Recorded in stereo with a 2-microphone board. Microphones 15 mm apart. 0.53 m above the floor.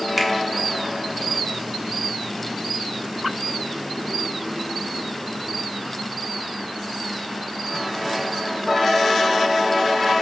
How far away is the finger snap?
About 1.2 m.